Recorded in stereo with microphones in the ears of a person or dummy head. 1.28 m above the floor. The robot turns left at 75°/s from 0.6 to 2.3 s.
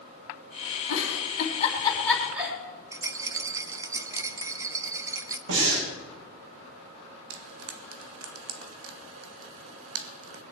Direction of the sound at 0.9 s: 75° left (ahead or behind).